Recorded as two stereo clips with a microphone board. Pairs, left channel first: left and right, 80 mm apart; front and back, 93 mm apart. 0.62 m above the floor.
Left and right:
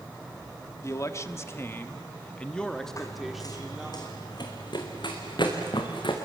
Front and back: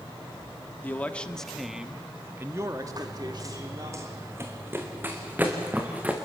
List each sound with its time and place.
0.8 s a man speaking: 60° left, 1.4 m; by 4.0 s 170° right, 1.7 m
3.0 s running footsteps: 135° left, 1.9 m; by 6.1 s 105° left, 3.5 m